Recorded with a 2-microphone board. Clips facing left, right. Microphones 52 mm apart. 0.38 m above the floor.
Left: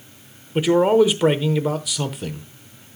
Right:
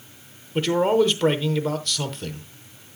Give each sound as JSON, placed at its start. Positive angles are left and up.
{"t": 0.6, "sound": "a man speaking", "side_deg": 10, "distance_m": 0.8}